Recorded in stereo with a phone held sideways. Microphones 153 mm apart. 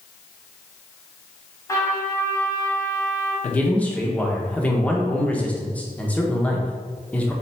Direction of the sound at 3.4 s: 10° left (ahead or behind).